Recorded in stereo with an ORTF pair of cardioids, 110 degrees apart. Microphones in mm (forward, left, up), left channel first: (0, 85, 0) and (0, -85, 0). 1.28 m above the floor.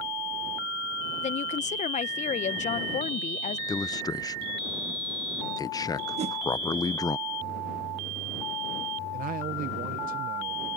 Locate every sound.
1.2 s a woman speaking: 45° left
3.7 s a man speaking: 20° left
6.2 s a whoosh: 40° right
9.1 s a man speaking: 55° right